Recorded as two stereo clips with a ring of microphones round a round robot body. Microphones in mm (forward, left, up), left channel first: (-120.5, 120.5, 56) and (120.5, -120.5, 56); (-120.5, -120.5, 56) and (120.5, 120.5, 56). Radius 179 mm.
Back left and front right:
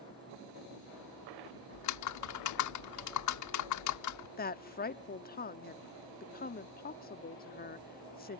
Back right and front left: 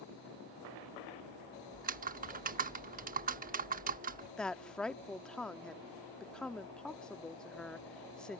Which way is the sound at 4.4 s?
140° left.